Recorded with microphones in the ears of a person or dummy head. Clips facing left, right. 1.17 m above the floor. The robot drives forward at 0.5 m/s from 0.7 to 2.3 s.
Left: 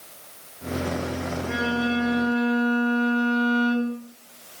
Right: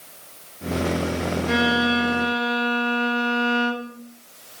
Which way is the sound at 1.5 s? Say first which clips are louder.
Right 3 dB; 75° right (ahead or behind).